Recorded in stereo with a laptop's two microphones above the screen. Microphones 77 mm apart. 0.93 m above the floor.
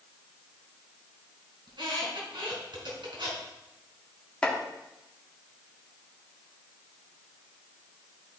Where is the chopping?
15° left (ahead or behind), 1.6 m.